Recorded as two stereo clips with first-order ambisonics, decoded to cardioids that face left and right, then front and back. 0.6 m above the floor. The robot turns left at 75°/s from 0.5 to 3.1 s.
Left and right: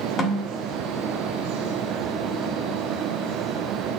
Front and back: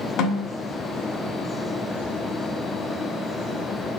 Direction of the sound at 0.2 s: 30° left.